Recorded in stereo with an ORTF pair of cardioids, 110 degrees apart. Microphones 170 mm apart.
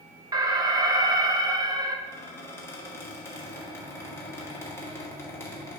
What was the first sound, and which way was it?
An alarm, 25° right.